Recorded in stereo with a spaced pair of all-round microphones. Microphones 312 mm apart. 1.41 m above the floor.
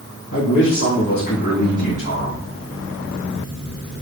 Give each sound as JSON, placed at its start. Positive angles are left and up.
{"t": 0.3, "sound": "a man speaking", "side_deg": 70, "distance_m": 1.4}